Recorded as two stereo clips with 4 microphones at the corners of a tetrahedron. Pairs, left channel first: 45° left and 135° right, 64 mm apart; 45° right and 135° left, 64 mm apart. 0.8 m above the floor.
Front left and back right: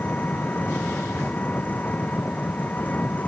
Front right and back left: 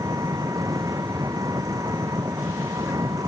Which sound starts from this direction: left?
An engine running, at 0.0 s.